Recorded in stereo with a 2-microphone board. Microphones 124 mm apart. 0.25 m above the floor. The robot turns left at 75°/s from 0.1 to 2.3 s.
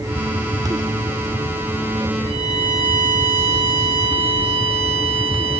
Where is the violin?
55° right (ahead or behind), 9 m; by 5.6 s 50° right (ahead or behind), 9 m.